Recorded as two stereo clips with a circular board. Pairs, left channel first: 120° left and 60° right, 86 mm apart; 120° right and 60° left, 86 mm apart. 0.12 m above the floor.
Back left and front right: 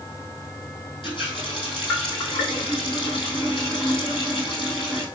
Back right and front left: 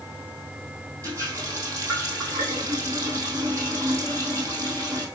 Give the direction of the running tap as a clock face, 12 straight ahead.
8 o'clock.